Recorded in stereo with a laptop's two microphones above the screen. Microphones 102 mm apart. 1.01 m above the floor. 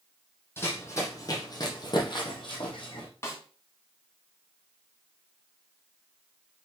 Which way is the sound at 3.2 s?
25° left (ahead or behind).